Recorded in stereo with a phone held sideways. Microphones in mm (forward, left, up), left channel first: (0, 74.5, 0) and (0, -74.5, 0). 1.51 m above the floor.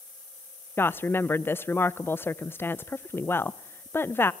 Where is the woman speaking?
15° left (ahead or behind), 0.7 m.